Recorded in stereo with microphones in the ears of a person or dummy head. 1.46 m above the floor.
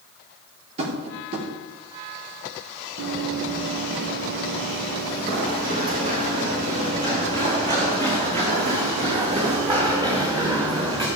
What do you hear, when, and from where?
0.8 s tapping: 45° right (ahead or behind), 4.5 m
3.0 s running footsteps: 65° right (ahead or behind), 3.5 m; by 11.1 s 20° right (ahead or behind), 6 m